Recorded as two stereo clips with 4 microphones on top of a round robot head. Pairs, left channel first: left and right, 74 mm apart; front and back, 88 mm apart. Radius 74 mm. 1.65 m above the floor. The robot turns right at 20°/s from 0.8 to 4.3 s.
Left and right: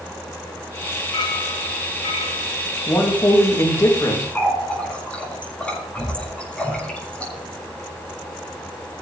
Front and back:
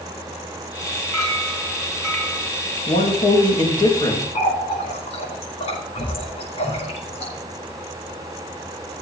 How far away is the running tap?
About 4.5 m.